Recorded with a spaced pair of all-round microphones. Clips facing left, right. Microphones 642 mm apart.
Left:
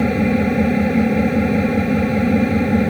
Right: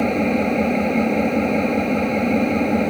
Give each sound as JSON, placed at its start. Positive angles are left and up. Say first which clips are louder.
{"t": 0.0, "sound": "an engine running", "louder": "left 2 dB", "side_deg": 45}